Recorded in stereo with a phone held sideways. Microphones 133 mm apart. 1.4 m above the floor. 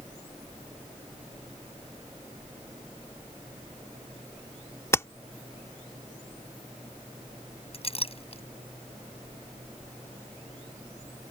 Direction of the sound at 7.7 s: 45° left (ahead or behind).